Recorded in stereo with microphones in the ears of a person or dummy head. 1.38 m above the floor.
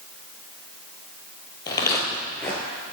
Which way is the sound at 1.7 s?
20° left (ahead or behind).